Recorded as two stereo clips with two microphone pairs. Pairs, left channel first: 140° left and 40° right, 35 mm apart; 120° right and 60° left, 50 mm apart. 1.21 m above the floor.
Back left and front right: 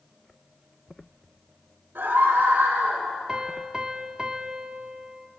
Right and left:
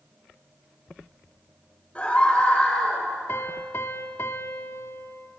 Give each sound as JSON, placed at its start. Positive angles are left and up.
{"t": 1.9, "sound": "a scream", "azimuth_deg": -55, "distance_m": 6.5}
{"t": 3.3, "sound": "a piano", "azimuth_deg": -100, "distance_m": 1.3}